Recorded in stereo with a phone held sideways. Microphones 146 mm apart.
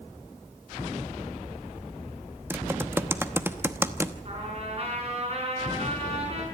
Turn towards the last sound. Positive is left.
turn(degrees=-45)  # may be behind; listen again after turning